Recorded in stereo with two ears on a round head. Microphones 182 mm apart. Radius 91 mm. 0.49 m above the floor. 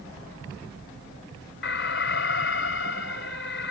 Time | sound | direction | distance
1.6 | an alarm | 60° left (ahead or behind) | ?